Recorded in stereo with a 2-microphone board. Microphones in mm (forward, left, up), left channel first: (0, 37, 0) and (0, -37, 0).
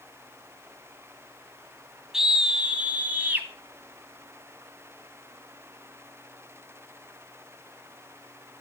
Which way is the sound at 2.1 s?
5° right (ahead or behind).